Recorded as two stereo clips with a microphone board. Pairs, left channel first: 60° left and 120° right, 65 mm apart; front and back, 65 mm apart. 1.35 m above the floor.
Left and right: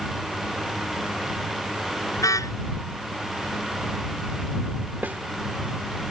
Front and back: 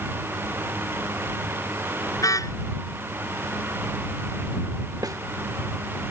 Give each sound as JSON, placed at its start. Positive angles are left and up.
{"t": 2.2, "sound": "a car horn", "azimuth_deg": 30}
{"t": 5.0, "sound": "a snare drum", "azimuth_deg": 180}